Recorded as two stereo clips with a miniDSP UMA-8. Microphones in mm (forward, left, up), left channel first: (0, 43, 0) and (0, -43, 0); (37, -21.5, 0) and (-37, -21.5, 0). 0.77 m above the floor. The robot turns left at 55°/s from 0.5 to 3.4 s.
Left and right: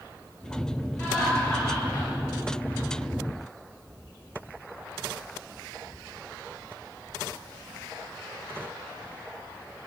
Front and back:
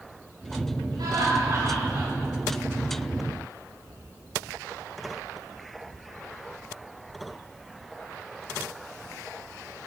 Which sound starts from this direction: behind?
Laughter, at 1.0 s.